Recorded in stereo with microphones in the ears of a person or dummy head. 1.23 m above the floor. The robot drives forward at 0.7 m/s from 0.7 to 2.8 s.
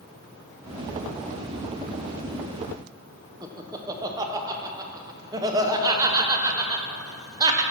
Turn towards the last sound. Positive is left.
turn(degrees=-20)  # may be behind; listen again after turning